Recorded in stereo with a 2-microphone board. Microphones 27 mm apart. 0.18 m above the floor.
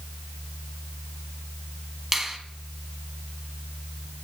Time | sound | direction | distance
2.1 | a finger snap | 10° right (ahead or behind) | 0.8 m